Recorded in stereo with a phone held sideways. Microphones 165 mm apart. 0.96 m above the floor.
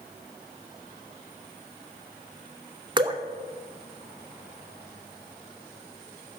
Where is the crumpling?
No crumpling in this recording.